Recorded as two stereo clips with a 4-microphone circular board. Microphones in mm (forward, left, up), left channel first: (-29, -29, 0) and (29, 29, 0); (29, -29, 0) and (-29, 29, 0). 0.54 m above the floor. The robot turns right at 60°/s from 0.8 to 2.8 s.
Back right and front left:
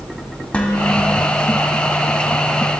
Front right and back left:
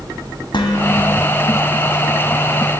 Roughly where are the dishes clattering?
Ahead right.